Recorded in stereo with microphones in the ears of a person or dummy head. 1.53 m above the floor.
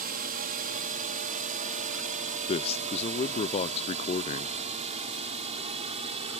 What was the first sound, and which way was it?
A drone, 45° right (ahead or behind).